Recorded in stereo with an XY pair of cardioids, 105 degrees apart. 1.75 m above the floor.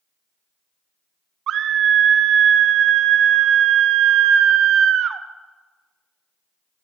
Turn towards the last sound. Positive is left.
turn(degrees=-65)